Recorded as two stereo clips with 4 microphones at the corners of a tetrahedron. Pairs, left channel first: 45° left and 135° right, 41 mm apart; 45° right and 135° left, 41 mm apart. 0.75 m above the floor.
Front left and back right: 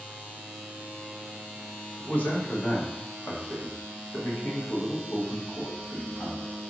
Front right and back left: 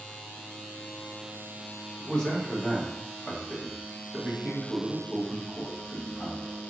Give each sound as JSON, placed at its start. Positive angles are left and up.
{"t": 2.0, "sound": "a man speaking", "azimuth_deg": 20, "distance_m": 1.0}